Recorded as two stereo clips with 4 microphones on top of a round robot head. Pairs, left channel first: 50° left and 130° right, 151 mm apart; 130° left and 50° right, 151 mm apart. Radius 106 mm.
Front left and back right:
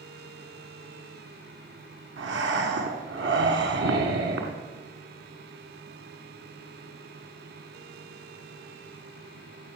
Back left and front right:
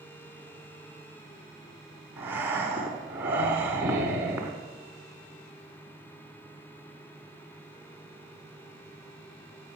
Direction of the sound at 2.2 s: 130° right.